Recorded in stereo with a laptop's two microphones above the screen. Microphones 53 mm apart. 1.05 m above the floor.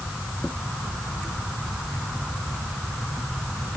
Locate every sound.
Only background noise.